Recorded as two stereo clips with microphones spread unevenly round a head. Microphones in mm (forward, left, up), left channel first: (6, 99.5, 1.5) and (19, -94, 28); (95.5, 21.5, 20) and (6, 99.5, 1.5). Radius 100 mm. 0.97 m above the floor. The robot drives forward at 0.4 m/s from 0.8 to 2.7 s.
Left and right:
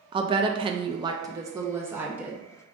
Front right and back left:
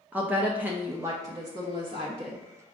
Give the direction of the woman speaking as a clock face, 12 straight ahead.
5 o'clock.